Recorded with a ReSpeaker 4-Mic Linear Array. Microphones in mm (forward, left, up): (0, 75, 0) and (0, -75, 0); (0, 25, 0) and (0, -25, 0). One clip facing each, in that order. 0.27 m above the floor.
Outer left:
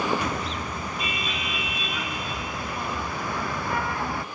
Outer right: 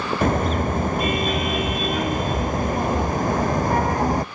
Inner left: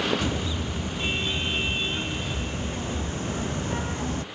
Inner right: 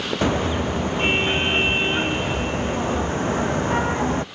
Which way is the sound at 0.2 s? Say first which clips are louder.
Outer right 9 dB, inner right 8 dB; 55° right (ahead or behind).